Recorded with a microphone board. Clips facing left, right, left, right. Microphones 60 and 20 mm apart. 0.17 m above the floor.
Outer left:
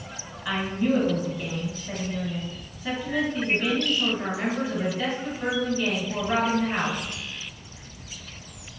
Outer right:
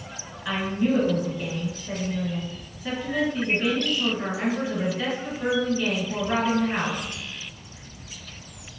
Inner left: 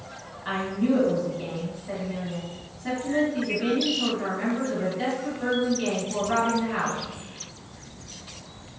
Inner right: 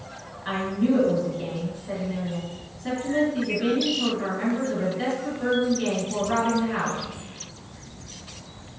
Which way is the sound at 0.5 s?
5° left (ahead or behind).